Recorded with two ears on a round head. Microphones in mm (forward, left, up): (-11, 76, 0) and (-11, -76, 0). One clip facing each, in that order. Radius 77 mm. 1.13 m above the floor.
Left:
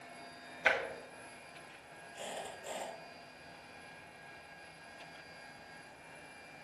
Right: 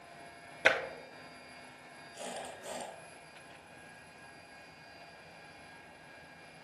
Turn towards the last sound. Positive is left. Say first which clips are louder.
# right 1 dB
turn(degrees=-60)  # may be behind; listen again after turning